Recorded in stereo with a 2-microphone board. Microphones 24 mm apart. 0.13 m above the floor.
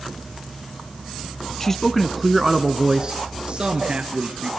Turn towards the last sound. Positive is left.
turn(degrees=-55)  # may be behind; listen again after turning